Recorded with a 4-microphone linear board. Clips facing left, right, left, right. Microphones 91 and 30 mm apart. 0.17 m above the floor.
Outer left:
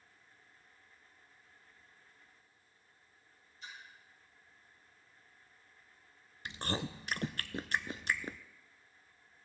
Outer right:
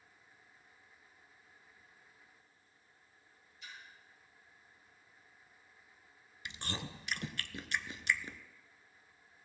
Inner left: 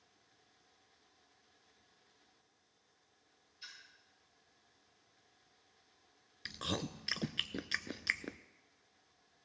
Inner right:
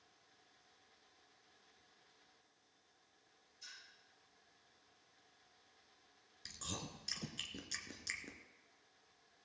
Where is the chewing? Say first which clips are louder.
Outer left 5 dB, inner left 8 dB; 40° left (ahead or behind), 0.7 m.